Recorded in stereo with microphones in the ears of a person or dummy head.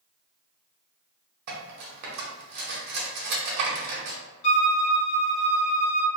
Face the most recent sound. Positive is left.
turn(degrees=50)  # may be behind; listen again after turning